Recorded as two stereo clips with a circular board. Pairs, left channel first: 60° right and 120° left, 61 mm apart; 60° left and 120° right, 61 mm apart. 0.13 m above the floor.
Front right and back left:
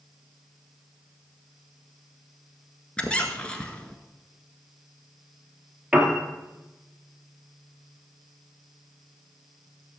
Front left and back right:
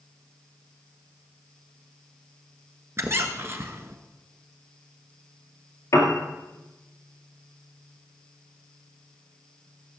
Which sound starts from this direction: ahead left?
A piano, at 5.9 s.